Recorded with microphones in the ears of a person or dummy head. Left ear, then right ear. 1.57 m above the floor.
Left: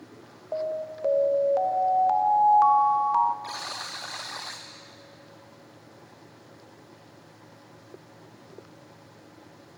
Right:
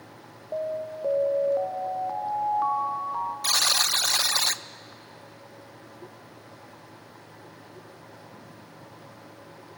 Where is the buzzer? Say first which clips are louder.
Right 12 dB; 75° right (ahead or behind), 0.7 m.